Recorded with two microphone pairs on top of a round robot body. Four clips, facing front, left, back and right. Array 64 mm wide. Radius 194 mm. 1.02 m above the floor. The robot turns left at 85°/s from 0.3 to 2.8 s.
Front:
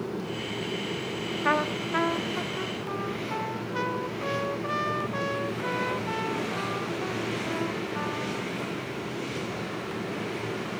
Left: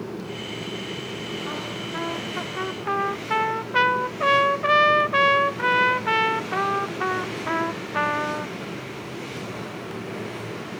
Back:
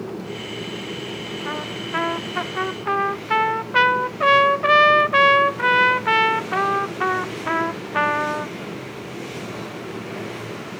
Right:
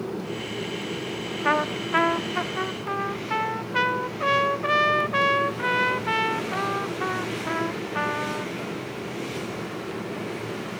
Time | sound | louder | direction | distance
1.4 | a trumpet | right 7 dB, front 5 dB | 70° right | ?